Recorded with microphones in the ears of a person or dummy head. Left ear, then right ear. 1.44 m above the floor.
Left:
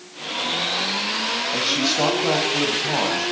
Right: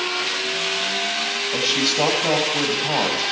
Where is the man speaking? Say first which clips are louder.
Right 2 dB; 10° right (ahead or behind), 7 m.